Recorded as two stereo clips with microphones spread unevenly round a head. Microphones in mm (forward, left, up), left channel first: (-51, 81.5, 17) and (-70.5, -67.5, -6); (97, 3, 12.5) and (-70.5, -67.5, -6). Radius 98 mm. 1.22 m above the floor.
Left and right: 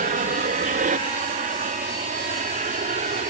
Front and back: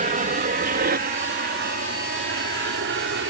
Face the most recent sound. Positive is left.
turn(degrees=-135)